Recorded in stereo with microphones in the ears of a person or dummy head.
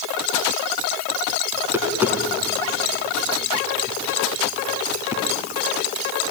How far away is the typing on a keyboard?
I don't hear typing on a keyboard.